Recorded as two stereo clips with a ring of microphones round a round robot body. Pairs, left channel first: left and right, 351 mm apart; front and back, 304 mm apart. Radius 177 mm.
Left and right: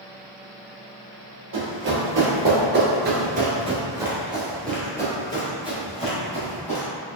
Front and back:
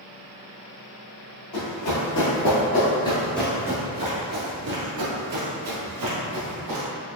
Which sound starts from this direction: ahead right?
Running footsteps, at 1.5 s.